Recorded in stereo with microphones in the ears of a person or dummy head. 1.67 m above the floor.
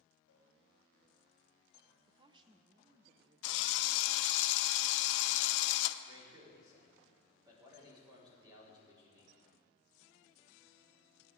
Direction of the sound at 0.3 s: 70° left (ahead or behind).